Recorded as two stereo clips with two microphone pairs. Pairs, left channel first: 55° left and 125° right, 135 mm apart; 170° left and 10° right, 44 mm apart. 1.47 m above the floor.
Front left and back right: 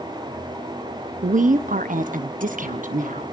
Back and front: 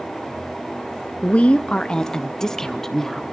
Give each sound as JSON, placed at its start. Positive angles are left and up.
{"t": 1.2, "sound": "a woman speaking", "azimuth_deg": -140, "distance_m": 0.5}